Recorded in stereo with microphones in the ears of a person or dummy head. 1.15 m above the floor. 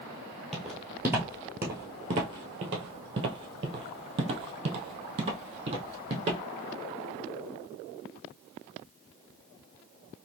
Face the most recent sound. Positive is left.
turn(degrees=-30)  # may be behind; listen again after turning